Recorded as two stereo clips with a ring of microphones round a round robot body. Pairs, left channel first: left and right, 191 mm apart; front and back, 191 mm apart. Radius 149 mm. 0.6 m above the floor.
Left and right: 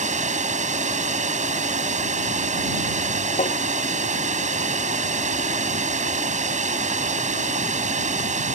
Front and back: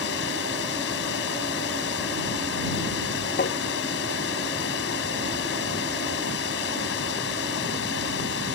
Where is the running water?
40° right.